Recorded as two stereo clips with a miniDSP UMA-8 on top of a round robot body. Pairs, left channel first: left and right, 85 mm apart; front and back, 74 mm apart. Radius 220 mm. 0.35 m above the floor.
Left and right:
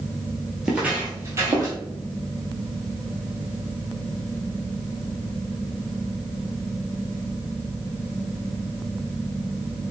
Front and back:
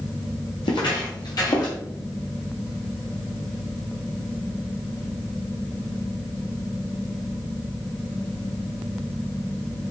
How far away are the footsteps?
About 0.7 m.